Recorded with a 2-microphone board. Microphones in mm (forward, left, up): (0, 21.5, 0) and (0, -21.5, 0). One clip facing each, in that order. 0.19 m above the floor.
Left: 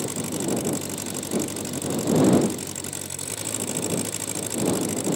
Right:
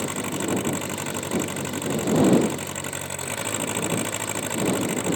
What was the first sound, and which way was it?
An engine running, 30° right (ahead or behind).